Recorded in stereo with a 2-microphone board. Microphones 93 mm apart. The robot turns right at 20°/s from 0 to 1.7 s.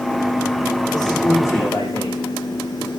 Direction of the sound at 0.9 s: 40° left (ahead or behind).